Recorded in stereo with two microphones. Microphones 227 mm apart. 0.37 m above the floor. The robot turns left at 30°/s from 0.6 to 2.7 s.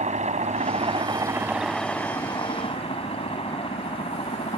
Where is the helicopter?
145° right; by 4.6 s 150° left.